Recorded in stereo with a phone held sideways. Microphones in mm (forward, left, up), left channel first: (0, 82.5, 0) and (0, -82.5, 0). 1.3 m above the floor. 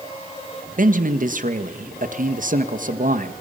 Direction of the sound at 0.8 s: 55° right (ahead or behind).